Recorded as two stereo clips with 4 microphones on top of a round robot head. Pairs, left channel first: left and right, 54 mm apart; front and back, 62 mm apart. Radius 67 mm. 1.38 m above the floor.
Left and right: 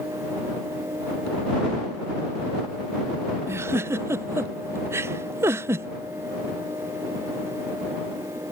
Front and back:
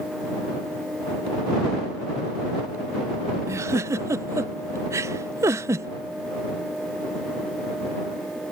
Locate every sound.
3.5 s a giggle: 135° right